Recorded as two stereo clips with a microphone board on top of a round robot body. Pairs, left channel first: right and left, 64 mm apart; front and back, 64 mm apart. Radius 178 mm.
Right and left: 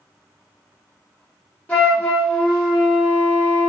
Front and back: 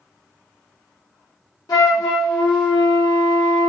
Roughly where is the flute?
Ahead.